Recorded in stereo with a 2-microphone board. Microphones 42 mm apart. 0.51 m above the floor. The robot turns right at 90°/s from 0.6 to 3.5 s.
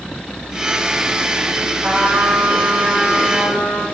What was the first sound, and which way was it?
A trumpet, 55° right.